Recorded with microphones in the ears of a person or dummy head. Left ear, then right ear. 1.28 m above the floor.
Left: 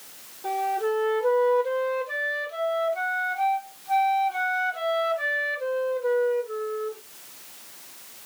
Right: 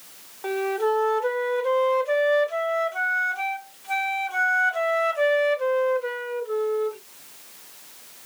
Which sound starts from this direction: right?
A flute, at 0.4 s.